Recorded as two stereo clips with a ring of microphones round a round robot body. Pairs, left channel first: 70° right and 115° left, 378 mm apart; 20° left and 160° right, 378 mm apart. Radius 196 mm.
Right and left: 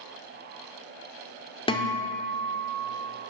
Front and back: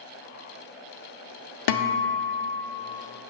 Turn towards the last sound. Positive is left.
turn(degrees=5)